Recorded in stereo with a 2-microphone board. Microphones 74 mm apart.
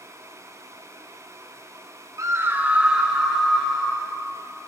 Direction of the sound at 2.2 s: 45° right (ahead or behind).